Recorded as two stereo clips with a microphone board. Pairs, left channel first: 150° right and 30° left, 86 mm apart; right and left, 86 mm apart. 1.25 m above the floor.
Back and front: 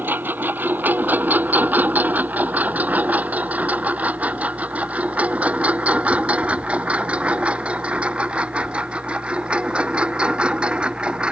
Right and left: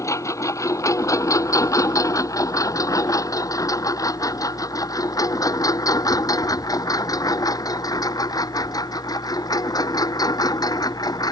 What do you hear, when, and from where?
0.0 s a lawn mower: 35° right; by 11.3 s 50° right